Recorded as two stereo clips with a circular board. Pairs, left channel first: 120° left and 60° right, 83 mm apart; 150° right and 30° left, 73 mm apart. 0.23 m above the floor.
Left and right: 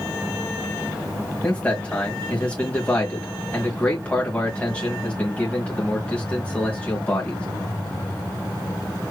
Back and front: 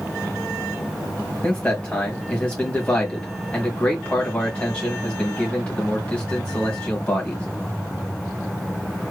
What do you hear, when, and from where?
1.4 s a man speaking: 165° left, 1.4 m